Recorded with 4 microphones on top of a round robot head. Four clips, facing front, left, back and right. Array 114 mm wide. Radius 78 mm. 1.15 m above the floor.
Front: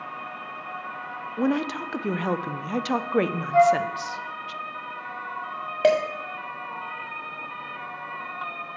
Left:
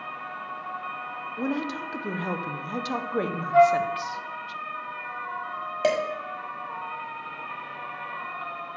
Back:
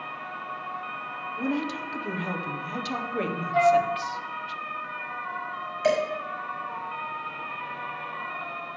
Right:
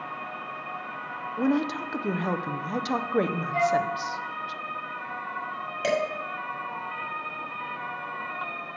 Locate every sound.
1.4 s a woman speaking: 10° right, 0.6 m
3.5 s a flute: 65° left, 2 m
5.8 s dishes clattering: 25° left, 1.7 m